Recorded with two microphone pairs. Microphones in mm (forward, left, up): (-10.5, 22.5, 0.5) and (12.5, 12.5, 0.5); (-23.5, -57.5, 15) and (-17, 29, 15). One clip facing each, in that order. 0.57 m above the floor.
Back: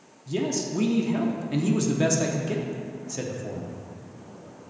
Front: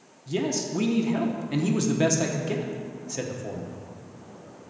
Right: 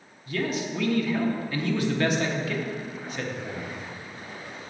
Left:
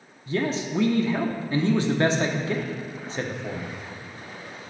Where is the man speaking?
50° left, 0.7 m.